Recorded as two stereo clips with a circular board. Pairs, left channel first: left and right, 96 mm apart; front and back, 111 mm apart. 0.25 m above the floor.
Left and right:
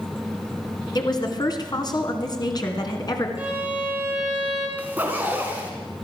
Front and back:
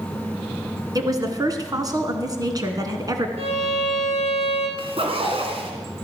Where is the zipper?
160° right, 2.5 m.